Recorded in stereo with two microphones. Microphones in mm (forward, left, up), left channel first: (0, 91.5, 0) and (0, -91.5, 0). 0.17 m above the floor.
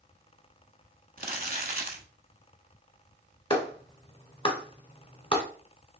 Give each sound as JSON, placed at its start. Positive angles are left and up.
{"t": 1.2, "sound": "crumpling", "side_deg": -55, "distance_m": 0.9}
{"t": 3.5, "sound": "a clap", "side_deg": 30, "distance_m": 1.1}